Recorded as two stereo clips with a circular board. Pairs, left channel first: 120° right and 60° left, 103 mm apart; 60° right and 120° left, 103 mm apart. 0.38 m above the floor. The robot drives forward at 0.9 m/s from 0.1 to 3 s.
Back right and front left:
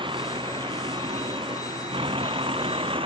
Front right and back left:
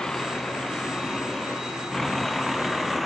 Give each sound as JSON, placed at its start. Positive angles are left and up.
{"t": 0.0, "sound": "a vehicle", "azimuth_deg": 25}